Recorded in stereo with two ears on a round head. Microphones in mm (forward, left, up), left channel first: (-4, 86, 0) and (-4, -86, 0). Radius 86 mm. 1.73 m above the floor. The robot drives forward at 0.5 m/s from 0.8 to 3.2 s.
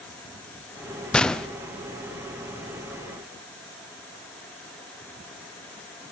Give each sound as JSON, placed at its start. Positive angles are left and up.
{"t": 1.1, "sound": "a gunshot", "side_deg": 5, "distance_m": 0.5}